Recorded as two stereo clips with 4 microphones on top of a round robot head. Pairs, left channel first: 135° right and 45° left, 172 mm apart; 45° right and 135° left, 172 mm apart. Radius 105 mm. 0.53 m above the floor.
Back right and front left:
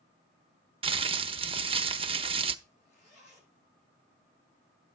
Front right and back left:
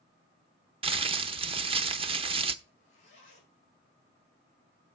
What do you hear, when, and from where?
0.8 s crumpling: 90° left, 0.7 m
2.6 s a zipper: 95° right, 7 m